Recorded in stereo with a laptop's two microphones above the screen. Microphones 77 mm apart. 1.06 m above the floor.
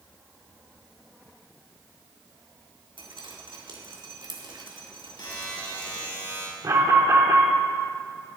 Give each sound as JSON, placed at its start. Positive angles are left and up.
{"t": 3.0, "sound": "dripping", "side_deg": -85, "distance_m": 2.0}
{"t": 5.2, "sound": "a buzzer", "side_deg": 85, "distance_m": 5.5}
{"t": 6.6, "sound": "an alarm", "side_deg": -45, "distance_m": 2.0}